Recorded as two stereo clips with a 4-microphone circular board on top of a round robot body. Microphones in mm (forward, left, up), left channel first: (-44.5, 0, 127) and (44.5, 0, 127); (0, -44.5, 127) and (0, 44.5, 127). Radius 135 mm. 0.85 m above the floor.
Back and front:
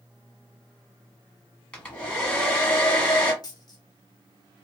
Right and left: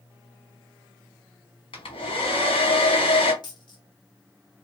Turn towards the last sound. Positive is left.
turn(degrees=-130)